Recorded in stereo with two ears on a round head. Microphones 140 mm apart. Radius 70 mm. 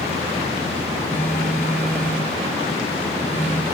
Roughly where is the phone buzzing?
Centre.